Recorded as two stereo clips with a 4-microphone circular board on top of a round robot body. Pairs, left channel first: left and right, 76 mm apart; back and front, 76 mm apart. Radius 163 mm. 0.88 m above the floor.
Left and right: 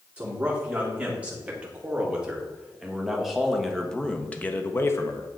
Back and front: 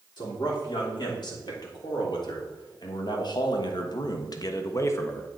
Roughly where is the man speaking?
Behind.